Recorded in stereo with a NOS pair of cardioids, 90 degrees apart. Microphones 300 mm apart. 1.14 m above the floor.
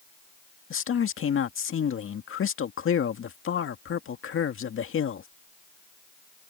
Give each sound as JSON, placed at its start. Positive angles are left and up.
{"t": 0.7, "sound": "a man speaking", "azimuth_deg": 45}